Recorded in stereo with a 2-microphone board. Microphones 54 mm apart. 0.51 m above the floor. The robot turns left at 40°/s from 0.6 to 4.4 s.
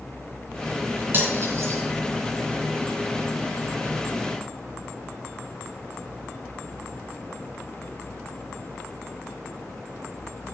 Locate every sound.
1.1 s cutlery clinking: 40° right (ahead or behind), 3 m; by 1.8 s 70° right (ahead or behind), 3 m